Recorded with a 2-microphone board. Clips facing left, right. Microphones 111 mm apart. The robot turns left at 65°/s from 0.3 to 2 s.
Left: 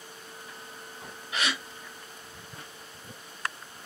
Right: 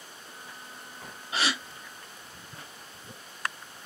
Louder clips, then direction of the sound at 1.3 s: Right 1 dB; 30° right (ahead or behind).